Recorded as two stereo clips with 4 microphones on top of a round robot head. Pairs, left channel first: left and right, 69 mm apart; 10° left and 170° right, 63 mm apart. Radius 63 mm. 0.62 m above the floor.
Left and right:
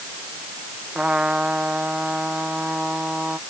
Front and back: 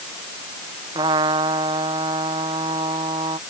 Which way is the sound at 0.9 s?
170° right.